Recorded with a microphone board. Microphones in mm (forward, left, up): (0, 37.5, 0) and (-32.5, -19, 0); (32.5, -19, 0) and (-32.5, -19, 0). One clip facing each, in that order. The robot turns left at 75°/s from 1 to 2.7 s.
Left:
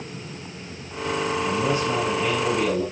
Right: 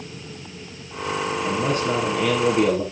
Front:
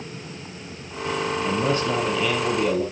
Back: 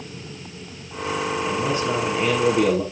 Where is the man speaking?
70° right, 2.5 m; by 2.8 s 165° right, 2.5 m.